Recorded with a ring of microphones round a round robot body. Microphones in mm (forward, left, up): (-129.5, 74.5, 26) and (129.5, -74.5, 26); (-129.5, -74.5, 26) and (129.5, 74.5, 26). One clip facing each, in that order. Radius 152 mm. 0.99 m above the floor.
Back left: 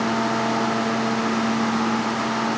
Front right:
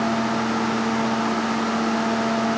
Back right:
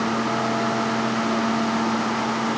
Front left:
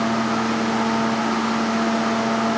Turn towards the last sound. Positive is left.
No sound to turn to.